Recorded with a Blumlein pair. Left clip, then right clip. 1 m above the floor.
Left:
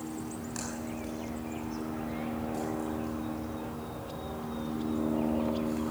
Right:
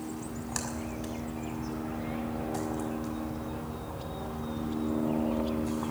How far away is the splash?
About 6 m.